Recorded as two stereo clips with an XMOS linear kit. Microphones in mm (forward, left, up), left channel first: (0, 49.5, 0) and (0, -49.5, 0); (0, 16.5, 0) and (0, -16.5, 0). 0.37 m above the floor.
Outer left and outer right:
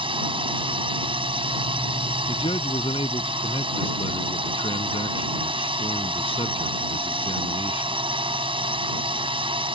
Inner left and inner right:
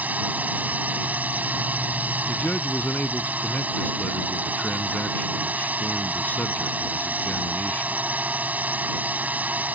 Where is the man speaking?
65° left (ahead or behind).